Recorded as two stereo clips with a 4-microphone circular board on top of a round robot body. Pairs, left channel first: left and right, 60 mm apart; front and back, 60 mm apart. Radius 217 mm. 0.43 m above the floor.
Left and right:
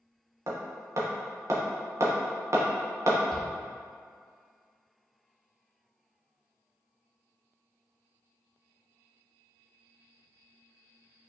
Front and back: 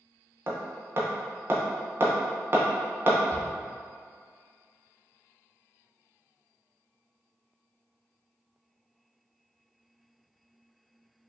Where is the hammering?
130° right, 0.9 m.